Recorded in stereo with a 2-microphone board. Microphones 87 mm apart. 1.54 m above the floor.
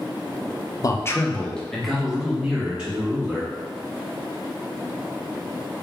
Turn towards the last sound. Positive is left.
turn(degrees=-15)  # may be behind; listen again after turning